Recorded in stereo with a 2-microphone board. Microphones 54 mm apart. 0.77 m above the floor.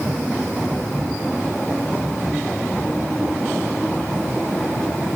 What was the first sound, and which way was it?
Only background noise.